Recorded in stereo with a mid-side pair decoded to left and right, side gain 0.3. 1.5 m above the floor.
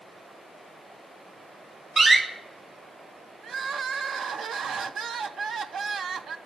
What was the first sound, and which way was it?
A door slam, 40° right.